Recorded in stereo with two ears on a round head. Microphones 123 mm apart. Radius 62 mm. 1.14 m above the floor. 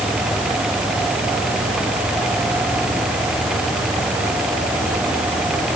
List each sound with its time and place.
Only background noise.